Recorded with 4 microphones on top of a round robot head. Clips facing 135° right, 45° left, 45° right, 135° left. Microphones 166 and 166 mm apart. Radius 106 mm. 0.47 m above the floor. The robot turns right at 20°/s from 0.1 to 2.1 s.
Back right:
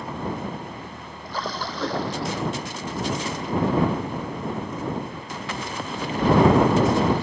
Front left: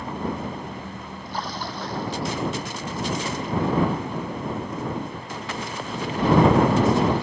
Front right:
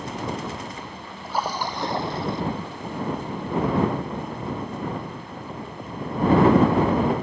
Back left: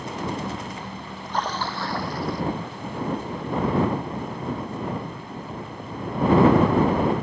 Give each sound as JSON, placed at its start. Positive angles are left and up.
{"t": 1.2, "sound": "a splash", "azimuth_deg": -130}